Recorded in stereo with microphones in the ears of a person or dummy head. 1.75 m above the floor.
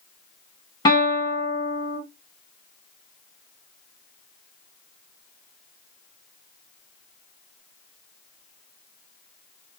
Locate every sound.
0.8 s a guitar: 25° left (ahead or behind), 3 m